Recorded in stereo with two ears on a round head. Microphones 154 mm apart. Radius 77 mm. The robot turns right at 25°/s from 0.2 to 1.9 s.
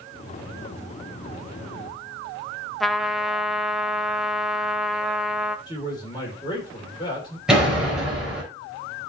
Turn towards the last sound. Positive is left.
turn(degrees=-5)  # may be behind; listen again after turning